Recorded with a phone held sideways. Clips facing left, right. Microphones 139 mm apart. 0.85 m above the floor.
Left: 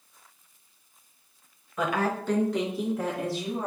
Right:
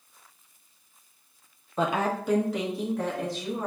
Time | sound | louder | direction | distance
1.8 | a woman speaking | right 1 dB | 30° right (ahead or behind) | 0.6 m